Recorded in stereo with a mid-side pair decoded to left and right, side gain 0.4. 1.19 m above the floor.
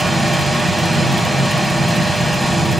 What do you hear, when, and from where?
0.0 s a machine running: 15° right, 3 m